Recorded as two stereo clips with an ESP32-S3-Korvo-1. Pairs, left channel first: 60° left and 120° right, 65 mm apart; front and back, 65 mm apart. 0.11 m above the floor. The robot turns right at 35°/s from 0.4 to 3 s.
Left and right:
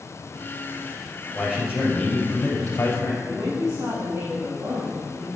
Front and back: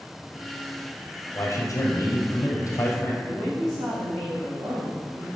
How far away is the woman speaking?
About 4 m.